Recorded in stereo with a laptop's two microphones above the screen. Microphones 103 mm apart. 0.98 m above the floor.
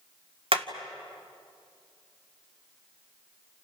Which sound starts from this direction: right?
Hammering, at 0.5 s.